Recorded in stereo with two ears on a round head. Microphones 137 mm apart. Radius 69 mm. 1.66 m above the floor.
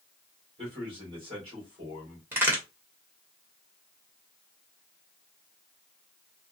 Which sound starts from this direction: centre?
A crack, at 2.3 s.